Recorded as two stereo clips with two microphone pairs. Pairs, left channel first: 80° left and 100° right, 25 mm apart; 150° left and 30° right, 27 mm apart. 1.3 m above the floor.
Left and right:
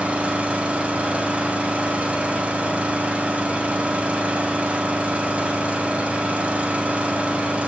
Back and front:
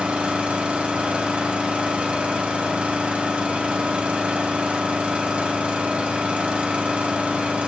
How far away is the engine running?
About 3 m.